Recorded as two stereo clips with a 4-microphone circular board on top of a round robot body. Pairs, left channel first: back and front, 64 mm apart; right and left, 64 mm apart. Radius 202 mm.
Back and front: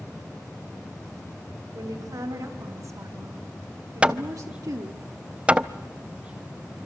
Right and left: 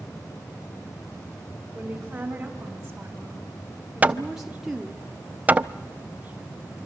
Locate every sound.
1.7 s a woman speaking: 20° left, 4 m; by 5.0 s 5° left, 2 m
4.0 s hammering: 55° left, 1.0 m